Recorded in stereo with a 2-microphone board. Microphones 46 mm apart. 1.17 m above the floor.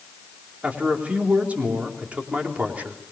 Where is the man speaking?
35° right (ahead or behind), 3.5 m.